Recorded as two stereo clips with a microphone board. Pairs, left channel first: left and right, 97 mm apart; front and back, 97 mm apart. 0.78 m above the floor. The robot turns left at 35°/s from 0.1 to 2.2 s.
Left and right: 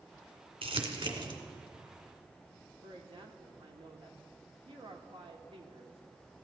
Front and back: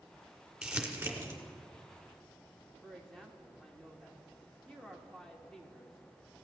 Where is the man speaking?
85° right, 2.0 m.